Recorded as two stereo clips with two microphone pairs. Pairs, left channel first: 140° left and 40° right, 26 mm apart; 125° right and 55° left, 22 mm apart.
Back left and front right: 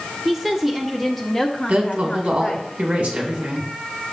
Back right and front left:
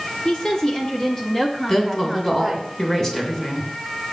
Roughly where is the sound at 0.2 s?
Right.